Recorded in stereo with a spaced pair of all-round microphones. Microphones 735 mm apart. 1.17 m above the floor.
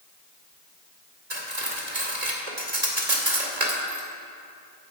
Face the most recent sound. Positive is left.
turn(degrees=-60)  # may be behind; listen again after turning